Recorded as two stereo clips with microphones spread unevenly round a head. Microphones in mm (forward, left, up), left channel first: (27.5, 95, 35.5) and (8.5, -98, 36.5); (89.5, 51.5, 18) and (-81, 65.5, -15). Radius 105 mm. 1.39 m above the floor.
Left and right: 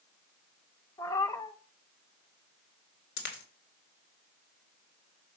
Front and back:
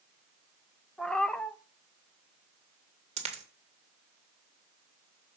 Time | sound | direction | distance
1.0 | a cat meowing | 35° left | 0.6 m
3.2 | a dropped coin | 120° left | 2.5 m